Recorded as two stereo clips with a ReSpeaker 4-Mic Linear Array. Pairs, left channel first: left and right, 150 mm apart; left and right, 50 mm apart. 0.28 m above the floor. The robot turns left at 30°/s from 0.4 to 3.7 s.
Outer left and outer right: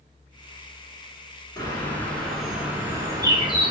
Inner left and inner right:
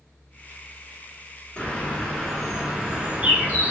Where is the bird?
25° left, 0.9 m; by 3.7 s 40° right, 0.9 m.